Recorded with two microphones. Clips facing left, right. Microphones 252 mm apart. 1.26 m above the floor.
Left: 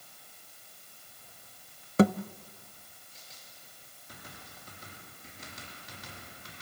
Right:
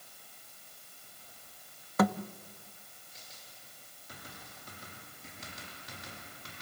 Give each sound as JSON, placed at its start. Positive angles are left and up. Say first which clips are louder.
{"t": 2.0, "sound": "a thud", "louder": "left 5 dB", "side_deg": 30, "distance_m": 0.6}